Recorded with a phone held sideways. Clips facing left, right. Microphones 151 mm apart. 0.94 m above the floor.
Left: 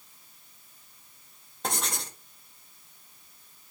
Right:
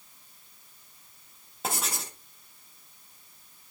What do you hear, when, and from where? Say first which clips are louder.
1.6 s writing: even; 5° right (ahead or behind), 0.7 m